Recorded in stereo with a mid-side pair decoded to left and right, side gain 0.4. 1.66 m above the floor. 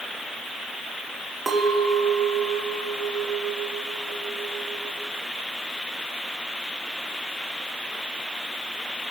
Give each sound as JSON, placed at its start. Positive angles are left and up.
{"t": 1.5, "sound": "a clink", "azimuth_deg": -30, "distance_m": 2.0}